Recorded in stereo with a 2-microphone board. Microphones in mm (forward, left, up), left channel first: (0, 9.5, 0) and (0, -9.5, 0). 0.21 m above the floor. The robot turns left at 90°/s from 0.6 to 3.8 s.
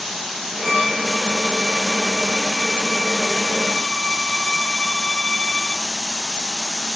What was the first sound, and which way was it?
A violin, 40° left.